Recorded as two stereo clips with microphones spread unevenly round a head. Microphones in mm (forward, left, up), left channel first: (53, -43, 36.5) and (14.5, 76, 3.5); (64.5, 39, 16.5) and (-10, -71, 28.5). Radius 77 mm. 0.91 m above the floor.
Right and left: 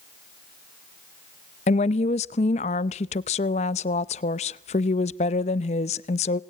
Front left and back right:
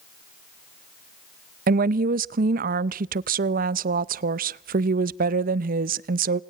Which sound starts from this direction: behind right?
A woman speaking, at 1.7 s.